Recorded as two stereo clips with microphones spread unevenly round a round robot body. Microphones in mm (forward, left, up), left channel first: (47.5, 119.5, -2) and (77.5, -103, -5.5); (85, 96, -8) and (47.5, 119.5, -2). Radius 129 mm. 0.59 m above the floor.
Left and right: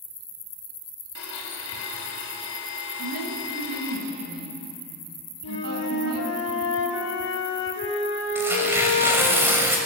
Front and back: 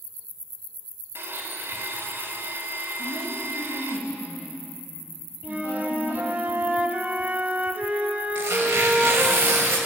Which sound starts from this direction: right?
A woman speaking, at 3.0 s.